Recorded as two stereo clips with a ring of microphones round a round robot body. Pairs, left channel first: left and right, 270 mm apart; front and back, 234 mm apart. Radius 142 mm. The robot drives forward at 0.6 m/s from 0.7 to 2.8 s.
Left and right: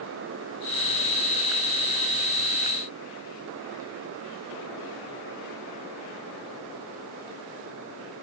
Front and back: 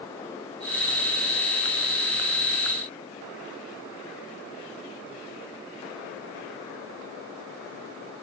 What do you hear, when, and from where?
Only background noise.